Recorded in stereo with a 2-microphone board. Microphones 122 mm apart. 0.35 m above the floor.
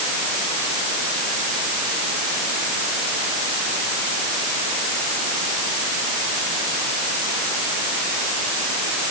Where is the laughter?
No laughter in this recording.